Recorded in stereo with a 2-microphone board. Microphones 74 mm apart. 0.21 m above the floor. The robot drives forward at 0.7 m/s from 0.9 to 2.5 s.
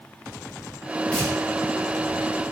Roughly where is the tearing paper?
Centre.